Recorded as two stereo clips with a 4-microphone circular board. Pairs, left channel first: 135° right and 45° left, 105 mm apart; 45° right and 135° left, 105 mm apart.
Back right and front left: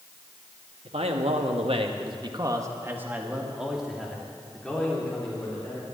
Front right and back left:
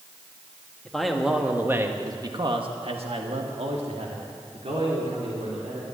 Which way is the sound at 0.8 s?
40° left.